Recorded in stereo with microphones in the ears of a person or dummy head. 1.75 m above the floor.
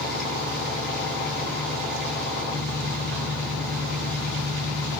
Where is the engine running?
Centre (ahead or behind), 3.5 m.